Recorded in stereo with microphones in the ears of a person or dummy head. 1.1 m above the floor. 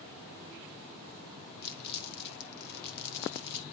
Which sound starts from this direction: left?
Crumpling, at 1.6 s.